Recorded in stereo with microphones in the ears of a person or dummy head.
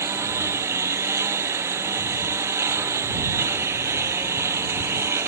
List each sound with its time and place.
0.0 s a lawn mower: 10° right (ahead or behind)